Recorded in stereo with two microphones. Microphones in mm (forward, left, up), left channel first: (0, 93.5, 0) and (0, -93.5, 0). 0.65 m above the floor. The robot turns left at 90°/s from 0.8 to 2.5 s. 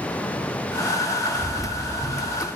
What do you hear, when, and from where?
1.4 s a bird: 140° right, 1.4 m; by 2.5 s 120° left, 1.4 m